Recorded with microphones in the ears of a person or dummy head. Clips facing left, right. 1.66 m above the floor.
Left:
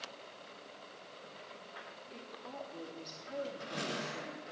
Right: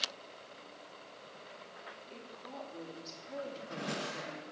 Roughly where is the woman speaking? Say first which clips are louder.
Left 1 dB; centre.